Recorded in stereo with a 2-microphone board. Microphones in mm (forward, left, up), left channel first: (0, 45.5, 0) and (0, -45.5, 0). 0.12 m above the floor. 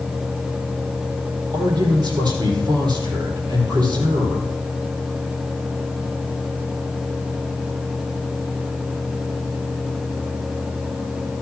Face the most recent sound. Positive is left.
turn(degrees=-55)  # may be behind; listen again after turning